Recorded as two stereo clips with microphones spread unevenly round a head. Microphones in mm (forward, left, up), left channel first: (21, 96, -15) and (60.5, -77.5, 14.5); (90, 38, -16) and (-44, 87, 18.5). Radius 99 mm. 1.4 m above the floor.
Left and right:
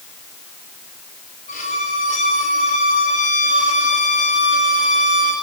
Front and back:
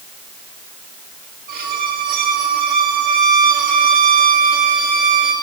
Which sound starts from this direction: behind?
A violin, at 1.5 s.